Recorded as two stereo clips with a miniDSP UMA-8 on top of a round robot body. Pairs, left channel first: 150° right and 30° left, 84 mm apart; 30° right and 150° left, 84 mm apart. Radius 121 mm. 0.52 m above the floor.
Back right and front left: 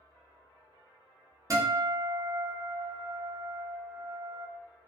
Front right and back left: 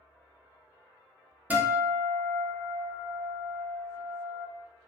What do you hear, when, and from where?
1.5 s a guitar: 80° left, 0.8 m